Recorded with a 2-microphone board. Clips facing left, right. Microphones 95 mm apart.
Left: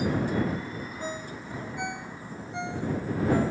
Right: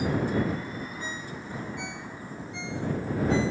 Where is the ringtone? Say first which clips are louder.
Left 2 dB; 55° left (ahead or behind).